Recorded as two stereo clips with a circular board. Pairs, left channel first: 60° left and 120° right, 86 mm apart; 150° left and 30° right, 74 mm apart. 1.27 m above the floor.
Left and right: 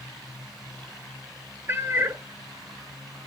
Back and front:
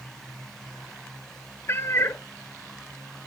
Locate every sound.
1.7 s a cat meowing: 170° right, 0.8 m